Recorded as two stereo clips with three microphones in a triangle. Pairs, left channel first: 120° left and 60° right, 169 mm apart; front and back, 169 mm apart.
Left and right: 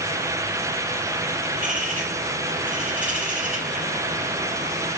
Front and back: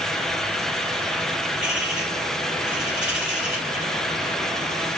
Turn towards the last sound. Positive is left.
turn(degrees=-95)